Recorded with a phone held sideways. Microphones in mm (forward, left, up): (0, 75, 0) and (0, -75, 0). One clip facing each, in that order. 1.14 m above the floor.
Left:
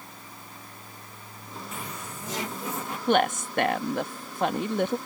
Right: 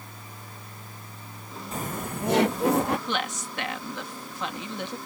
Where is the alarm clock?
No alarm clock in this recording.